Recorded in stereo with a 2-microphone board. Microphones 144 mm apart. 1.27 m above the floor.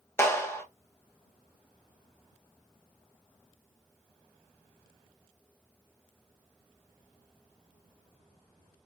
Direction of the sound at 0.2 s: 15° left (ahead or behind).